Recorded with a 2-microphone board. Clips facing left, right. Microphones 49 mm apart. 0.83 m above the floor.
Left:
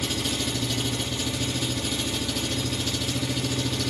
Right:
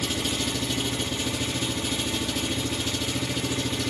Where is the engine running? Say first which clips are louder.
Even; 15° right (ahead or behind), 1.0 m.